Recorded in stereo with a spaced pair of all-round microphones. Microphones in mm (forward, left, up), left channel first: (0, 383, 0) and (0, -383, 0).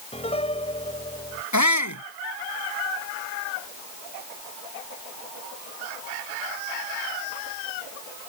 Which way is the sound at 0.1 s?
10° left (ahead or behind).